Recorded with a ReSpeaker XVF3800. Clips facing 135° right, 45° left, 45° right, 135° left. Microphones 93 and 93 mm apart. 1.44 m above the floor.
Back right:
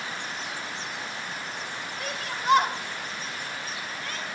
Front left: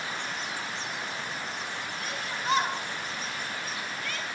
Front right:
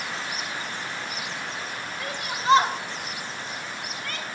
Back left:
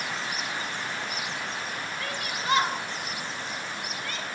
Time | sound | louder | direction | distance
2.0 | a shout | back right 4 dB, front right 6 dB | 115° right | 1.9 m